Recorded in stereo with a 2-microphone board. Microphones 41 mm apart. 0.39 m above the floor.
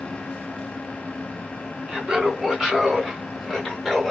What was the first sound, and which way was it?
Laughter, 15° right (ahead or behind).